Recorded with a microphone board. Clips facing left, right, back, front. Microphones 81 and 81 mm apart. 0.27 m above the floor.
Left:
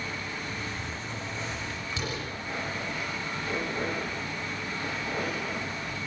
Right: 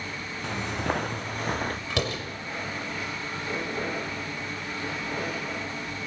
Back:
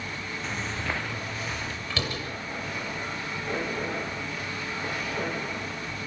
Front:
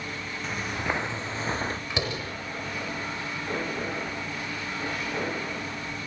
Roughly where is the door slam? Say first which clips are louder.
Right 3 dB, front 1 dB; right.